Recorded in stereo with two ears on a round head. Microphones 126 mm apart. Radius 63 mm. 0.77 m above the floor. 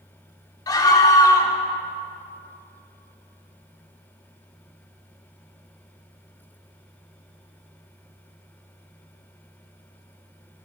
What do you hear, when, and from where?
0.7 s a scream: 25° left (ahead or behind), 2.0 m